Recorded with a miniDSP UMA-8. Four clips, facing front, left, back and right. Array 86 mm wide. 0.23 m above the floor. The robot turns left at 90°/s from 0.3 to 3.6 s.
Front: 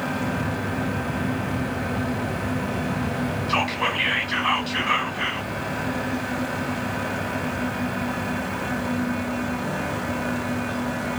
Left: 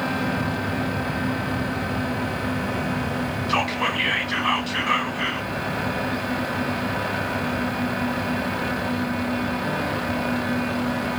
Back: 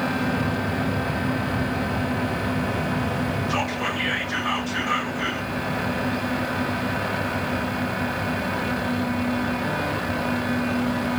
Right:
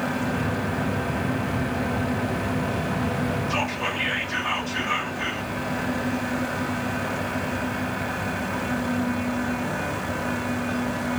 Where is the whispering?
55° left, 1.7 m; by 5.5 s 45° left, 1.7 m.